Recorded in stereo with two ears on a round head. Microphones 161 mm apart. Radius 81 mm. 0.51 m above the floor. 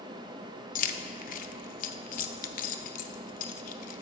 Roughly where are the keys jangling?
Left.